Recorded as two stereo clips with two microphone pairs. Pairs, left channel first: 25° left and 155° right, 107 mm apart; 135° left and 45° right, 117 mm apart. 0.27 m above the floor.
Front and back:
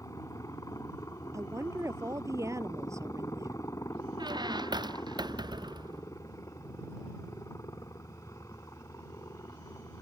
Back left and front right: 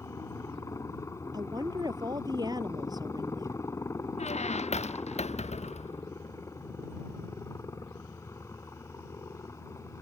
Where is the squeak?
155° left.